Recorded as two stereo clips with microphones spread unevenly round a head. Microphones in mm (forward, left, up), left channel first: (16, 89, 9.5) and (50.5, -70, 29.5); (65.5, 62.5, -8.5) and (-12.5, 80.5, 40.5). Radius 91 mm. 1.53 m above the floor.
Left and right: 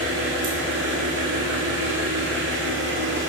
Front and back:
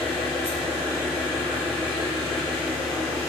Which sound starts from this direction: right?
An engine running, at 0.0 s.